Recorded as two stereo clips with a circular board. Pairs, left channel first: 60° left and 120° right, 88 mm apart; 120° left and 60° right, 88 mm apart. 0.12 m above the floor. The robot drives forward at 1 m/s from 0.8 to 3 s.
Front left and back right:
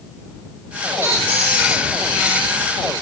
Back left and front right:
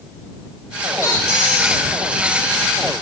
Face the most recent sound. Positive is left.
turn(degrees=175)